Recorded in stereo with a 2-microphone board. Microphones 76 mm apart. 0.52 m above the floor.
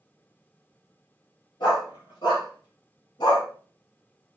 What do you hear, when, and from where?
1.6 s a dog barking: 75° left (ahead or behind), 2 m; by 3.5 s 85° left, 1.3 m